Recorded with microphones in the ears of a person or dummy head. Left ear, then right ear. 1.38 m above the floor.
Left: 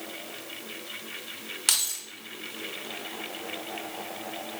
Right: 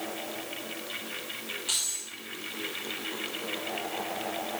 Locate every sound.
1.7 s keys jangling: 60° left (ahead or behind), 1.0 m